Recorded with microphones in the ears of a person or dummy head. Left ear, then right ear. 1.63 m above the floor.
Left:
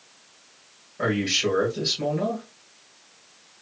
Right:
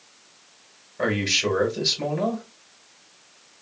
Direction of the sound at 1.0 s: 20° right (ahead or behind).